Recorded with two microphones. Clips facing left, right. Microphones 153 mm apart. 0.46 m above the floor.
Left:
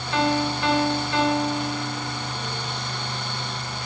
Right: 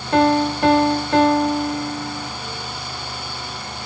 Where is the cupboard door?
No cupboard door in this recording.